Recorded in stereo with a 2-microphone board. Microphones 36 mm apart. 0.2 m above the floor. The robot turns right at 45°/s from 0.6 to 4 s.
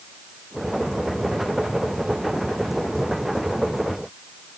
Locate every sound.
Only background noise.